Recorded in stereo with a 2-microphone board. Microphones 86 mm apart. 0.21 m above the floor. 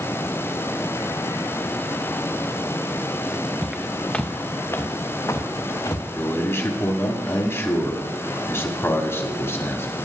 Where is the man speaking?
30° left (ahead or behind), 1.3 m.